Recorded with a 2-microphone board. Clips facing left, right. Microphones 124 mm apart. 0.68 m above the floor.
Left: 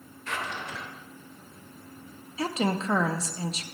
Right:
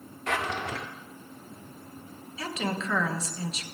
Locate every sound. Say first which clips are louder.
0.3 s a drawer: right 5 dB; 80° right, 0.6 m
2.4 s a woman speaking: left 4 dB; 35° left (ahead or behind), 0.6 m